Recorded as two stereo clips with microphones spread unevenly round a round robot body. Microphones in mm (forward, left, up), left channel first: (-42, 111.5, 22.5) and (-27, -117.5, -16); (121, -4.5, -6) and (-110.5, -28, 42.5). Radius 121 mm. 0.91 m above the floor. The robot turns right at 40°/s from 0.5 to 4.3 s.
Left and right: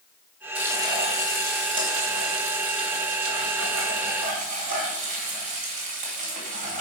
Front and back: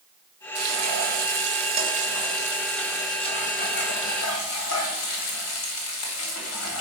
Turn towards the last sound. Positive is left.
turn(degrees=-25)